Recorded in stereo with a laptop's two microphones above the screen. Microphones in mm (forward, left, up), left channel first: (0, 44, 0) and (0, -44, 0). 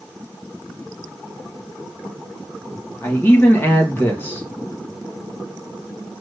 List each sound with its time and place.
3.0 s a man speaking: 25° left (ahead or behind), 1.5 m